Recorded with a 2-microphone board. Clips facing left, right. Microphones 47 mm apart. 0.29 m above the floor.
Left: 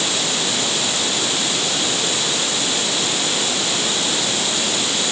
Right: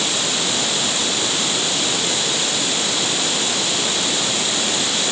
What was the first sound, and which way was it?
Only background noise.